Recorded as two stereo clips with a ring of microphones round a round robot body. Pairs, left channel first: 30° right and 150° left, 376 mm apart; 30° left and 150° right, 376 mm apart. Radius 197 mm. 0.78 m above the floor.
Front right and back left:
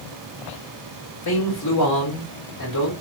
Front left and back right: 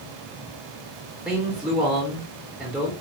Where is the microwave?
I don't hear a microwave.